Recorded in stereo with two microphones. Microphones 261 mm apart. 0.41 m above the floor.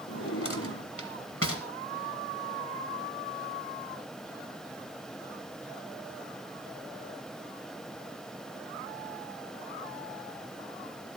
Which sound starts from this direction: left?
A drawer, at 0.1 s.